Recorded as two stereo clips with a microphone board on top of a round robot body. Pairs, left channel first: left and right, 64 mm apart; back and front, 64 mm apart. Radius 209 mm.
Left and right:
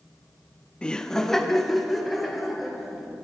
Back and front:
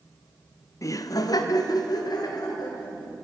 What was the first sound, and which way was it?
Laughter, 160° left.